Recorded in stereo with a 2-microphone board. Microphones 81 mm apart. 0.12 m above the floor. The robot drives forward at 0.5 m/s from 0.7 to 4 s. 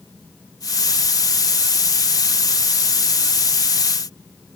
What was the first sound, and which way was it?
Only background noise.